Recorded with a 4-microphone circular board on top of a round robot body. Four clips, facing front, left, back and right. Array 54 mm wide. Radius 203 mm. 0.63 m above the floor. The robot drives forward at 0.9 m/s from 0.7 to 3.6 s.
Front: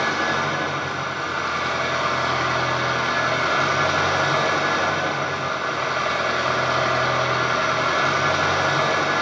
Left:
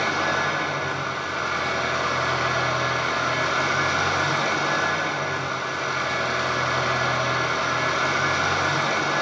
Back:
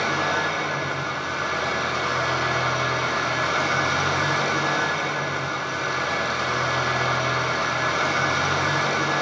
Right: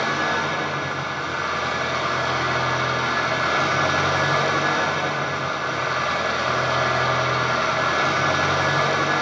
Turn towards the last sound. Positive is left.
turn(degrees=-35)